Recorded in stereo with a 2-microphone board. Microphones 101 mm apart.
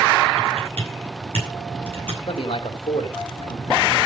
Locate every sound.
0.4 s typing on a keyboard: 65° right (ahead or behind), 9.5 m
2.3 s a man speaking: 70° left (ahead or behind), 2.5 m